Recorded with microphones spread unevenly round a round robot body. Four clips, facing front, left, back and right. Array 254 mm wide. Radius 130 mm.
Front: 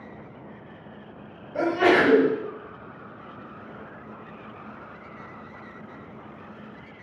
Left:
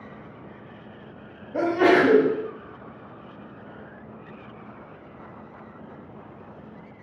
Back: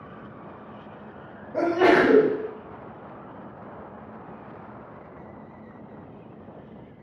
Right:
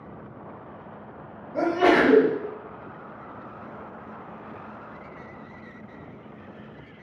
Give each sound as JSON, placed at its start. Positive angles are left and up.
{"t": 1.5, "sound": "a sneeze", "azimuth_deg": 125, "distance_m": 1.4}